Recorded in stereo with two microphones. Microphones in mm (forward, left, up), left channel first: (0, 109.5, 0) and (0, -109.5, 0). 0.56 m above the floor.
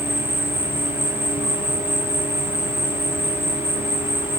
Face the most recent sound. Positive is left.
turn(degrees=25)  # may be behind; listen again after turning